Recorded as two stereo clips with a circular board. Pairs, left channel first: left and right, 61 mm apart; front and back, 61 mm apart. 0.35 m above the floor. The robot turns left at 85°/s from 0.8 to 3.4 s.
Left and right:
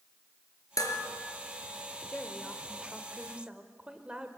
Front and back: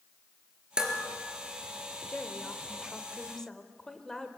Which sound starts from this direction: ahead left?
A woman speaking, at 2.1 s.